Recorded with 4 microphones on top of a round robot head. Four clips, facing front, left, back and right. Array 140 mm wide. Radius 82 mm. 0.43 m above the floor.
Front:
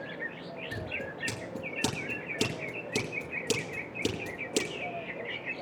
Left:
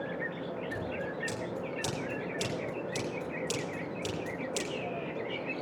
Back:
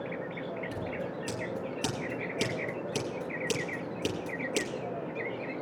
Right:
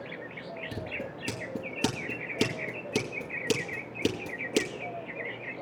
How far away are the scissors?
About 4 m.